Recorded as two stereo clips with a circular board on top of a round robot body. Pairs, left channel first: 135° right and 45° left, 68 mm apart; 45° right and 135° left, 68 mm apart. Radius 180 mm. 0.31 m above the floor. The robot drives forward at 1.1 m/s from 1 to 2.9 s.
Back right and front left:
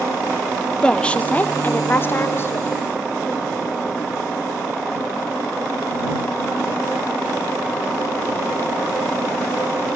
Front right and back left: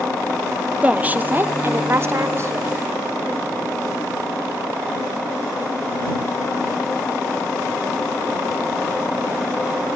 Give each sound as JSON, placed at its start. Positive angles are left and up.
{"t": 0.8, "sound": "a woman speaking", "azimuth_deg": 170, "distance_m": 1.3}